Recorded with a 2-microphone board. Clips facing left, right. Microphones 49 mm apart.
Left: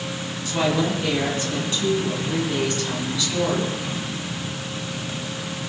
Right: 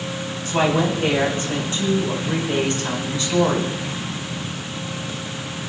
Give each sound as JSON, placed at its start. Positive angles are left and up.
{"t": 0.5, "sound": "a woman speaking", "side_deg": -40, "distance_m": 6.5}